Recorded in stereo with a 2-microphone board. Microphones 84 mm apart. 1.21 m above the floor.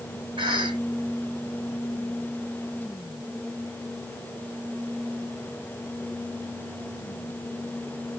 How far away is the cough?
About 2.5 m.